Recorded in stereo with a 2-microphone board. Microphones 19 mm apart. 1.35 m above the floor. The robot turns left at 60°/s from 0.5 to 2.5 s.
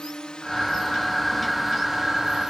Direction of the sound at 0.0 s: 55° left (ahead or behind).